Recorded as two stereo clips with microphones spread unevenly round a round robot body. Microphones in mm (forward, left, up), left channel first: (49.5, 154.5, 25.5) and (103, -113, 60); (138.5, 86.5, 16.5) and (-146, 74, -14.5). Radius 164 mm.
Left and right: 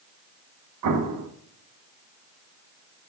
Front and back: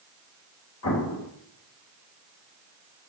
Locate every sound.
0.8 s an explosion: 50° right, 0.9 m